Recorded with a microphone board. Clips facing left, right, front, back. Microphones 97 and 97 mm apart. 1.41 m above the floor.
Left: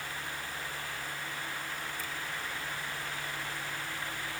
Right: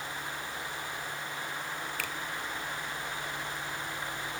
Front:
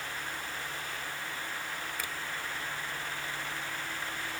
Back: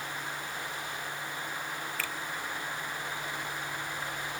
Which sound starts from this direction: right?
A finger snap, at 2.0 s.